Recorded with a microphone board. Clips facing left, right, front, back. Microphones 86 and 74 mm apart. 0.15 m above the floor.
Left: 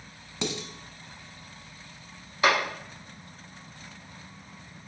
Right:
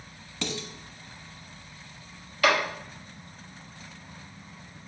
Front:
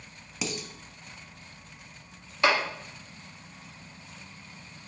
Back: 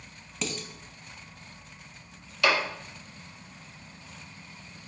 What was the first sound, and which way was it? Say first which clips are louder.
Dishes clattering: left 2 dB, even; 65° left.